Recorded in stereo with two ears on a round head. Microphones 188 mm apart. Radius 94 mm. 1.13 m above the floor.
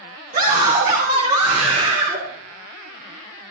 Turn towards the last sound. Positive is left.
turn(degrees=-30)  # may be behind; listen again after turning